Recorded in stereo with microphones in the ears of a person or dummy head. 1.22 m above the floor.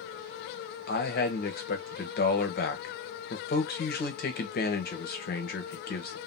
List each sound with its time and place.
0.9 s a man speaking: 50° left (ahead or behind), 0.9 m